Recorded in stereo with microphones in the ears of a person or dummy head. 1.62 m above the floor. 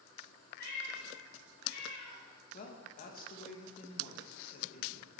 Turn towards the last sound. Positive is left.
turn(degrees=45)  # may be behind; listen again after turning